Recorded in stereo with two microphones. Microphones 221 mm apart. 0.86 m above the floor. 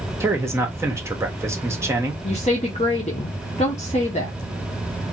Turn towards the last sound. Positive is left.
turn(degrees=30)  # may be behind; listen again after turning